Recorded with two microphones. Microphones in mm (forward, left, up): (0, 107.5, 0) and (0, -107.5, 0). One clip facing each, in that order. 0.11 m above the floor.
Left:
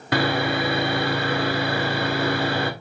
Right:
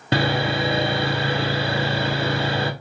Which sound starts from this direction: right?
Sawing, at 0.1 s.